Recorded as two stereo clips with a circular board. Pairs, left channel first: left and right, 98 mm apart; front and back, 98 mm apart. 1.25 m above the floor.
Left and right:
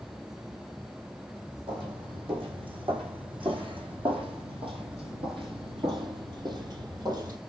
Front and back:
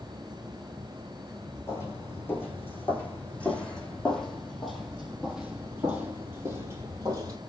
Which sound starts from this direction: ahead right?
Footsteps, at 1.7 s.